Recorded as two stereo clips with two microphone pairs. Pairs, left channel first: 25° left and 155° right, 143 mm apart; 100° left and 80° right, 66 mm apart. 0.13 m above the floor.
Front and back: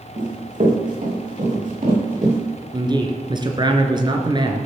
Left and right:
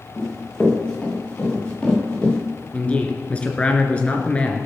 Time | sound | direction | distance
0.2 | running footsteps | straight behind | 7 m
2.7 | a man speaking | 165° left | 2 m